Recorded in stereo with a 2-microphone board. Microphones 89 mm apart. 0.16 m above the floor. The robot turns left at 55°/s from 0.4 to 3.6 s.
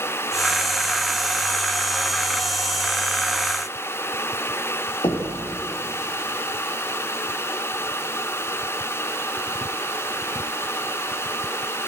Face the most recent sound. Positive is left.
turn(degrees=60)  # may be behind; listen again after turning